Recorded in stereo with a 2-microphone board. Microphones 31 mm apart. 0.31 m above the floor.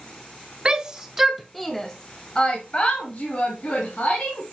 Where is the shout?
25° right (ahead or behind), 1.1 m; by 4.4 s 45° left (ahead or behind), 2.5 m.